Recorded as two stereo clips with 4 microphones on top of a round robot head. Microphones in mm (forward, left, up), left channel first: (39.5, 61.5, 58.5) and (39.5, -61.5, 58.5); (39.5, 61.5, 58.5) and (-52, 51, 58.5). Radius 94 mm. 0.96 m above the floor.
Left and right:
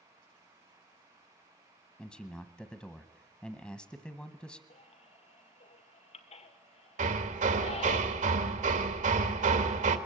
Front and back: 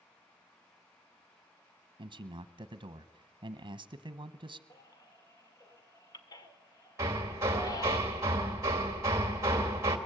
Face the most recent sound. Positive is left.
turn(degrees=-110)